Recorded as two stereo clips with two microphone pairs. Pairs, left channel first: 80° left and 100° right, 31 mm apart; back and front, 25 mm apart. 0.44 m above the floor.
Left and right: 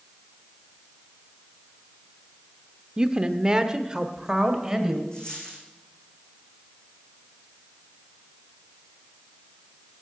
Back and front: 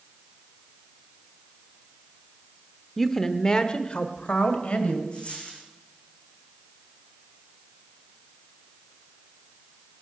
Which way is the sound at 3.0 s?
100° right.